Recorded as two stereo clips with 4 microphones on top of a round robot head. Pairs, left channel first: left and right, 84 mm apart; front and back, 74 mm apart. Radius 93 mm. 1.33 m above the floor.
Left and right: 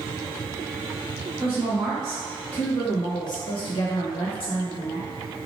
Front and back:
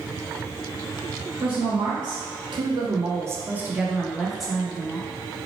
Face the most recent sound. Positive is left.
turn(degrees=85)